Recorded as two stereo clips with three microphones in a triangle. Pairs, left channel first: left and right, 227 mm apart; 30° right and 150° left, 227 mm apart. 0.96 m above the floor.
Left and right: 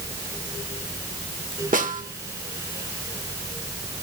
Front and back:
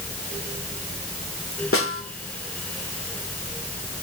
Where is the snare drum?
40° right, 1.7 m.